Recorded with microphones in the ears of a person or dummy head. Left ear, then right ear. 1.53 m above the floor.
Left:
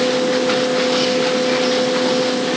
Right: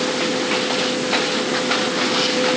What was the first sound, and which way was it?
Only background noise.